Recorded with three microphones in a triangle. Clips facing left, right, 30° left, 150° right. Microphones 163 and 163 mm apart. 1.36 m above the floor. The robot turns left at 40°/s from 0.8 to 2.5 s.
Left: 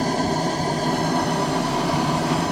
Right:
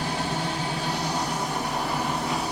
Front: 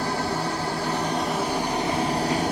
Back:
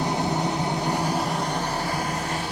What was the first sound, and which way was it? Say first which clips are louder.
An engine running: left 7 dB, back 2 dB; 140° left.